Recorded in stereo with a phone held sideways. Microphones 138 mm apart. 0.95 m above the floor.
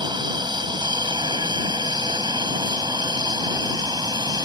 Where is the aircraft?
35° right (ahead or behind); by 4.5 s 30° right (ahead or behind).